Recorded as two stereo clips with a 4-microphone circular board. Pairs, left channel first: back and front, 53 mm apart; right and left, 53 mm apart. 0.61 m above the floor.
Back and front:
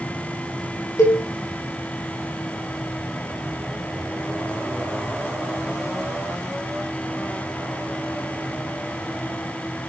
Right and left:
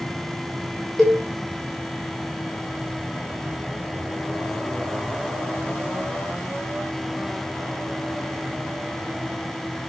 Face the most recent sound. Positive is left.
turn(degrees=-175)